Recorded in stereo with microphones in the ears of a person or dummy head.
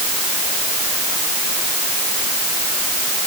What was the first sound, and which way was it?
Only background noise.